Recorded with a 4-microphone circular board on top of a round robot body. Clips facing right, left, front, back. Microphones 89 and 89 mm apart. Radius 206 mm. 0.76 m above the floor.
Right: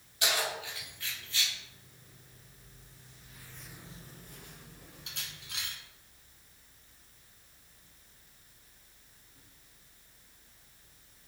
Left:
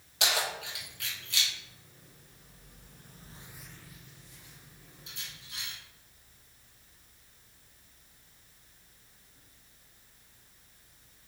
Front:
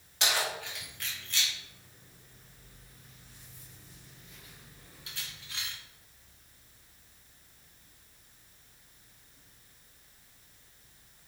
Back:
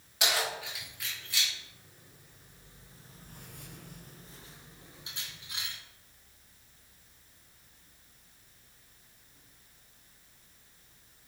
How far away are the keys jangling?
About 3 m.